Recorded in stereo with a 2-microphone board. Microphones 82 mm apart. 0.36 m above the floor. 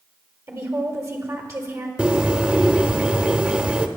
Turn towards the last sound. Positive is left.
turn(degrees=-15)  # may be behind; listen again after turning